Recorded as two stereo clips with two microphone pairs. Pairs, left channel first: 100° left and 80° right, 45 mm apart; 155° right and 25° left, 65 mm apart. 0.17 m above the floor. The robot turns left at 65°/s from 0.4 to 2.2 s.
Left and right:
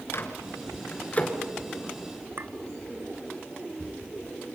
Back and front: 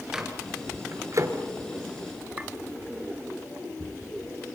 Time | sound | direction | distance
0.1 | a microwave | 100° left | 2.5 m
2.4 | a clink | 45° right | 1.2 m